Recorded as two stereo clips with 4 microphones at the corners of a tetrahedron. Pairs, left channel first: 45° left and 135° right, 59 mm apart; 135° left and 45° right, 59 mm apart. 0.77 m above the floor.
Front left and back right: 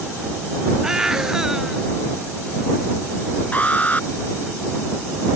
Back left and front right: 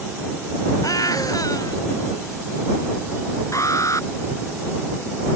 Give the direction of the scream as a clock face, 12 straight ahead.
7 o'clock.